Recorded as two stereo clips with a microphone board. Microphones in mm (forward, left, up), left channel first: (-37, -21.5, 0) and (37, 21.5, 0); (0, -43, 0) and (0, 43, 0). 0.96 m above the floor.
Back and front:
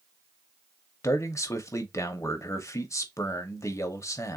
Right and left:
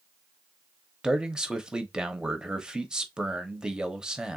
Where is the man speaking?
170° left, 0.8 m.